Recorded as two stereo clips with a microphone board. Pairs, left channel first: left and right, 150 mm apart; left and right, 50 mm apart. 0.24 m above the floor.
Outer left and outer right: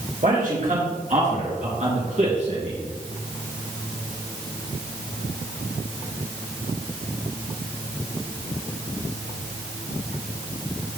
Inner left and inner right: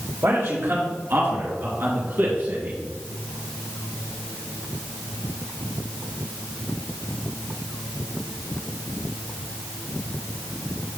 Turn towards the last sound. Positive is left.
turn(degrees=-45)  # may be behind; listen again after turning